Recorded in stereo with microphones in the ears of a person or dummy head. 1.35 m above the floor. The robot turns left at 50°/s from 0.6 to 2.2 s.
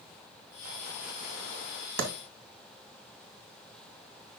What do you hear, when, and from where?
2.0 s a clap: 80° right, 1.9 m; by 2.1 s 75° right (ahead or behind), 1.9 m